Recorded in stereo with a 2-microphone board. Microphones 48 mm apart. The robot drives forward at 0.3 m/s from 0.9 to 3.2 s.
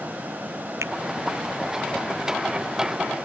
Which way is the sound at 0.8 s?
80° right.